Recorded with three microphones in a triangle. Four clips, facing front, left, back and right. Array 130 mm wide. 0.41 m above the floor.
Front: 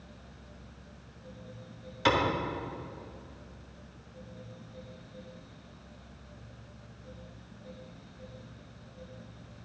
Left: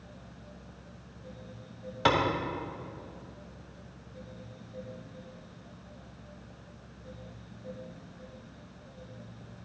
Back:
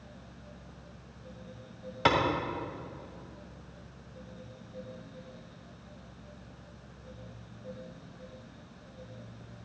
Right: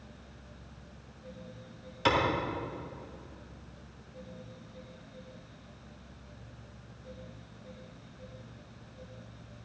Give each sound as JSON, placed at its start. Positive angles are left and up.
{"t": 2.0, "sound": "a clap", "azimuth_deg": 145, "distance_m": 2.0}